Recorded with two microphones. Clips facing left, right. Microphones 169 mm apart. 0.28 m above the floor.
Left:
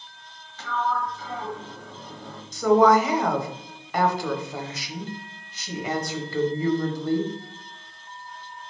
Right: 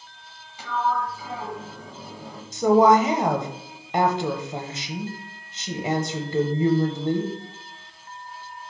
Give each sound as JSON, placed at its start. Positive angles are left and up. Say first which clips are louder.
{"t": 0.6, "sound": "a sliding door", "louder": "right 1 dB", "side_deg": -10, "distance_m": 1.0}
{"t": 2.5, "sound": "a woman speaking", "louder": "right 1 dB", "side_deg": -25, "distance_m": 1.0}